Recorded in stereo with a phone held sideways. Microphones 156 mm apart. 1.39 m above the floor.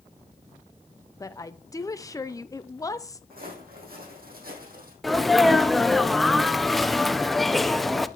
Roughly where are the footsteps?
Right.